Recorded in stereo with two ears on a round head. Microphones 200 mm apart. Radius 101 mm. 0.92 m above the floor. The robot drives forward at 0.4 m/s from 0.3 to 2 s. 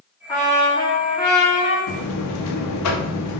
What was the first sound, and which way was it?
A trumpet, 15° left (ahead or behind).